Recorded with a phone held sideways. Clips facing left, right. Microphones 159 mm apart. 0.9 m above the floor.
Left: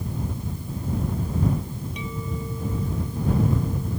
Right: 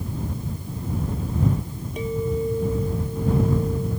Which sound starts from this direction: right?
A clink, at 2.0 s.